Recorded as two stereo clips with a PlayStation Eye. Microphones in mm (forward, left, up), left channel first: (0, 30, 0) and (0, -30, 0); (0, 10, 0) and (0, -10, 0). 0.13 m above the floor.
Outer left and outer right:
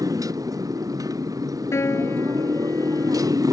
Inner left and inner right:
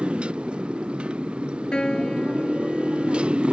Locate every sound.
0.0 s a motorcycle: 85° right
1.7 s a piano: 55° left (ahead or behind)